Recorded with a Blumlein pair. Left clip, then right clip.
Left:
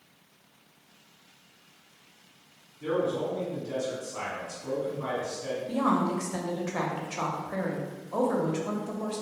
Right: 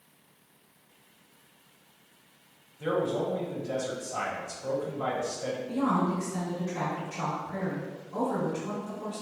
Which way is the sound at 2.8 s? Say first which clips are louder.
Even; 45° right.